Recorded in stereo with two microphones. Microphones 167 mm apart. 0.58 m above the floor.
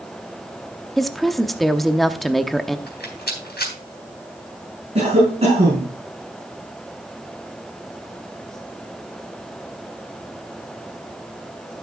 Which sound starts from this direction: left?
A rattle, at 2.9 s.